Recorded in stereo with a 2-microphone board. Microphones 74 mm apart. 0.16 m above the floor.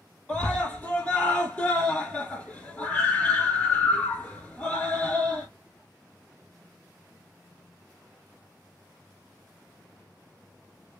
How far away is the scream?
About 1.0 m.